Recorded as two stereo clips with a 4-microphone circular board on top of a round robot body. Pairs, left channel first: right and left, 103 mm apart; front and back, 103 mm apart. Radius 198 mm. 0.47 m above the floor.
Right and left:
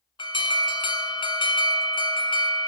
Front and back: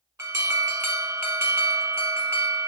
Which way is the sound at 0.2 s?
120° right.